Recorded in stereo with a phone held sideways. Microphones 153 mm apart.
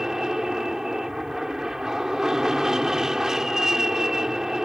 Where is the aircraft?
5° right (ahead or behind).